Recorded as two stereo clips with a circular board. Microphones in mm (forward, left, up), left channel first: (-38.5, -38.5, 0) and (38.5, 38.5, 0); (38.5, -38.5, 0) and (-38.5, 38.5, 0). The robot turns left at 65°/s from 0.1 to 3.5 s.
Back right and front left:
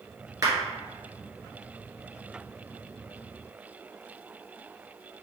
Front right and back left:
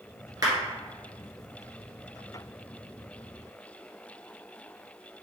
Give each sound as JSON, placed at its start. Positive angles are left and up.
{"t": 0.4, "sound": "a clap", "azimuth_deg": 90, "distance_m": 1.9}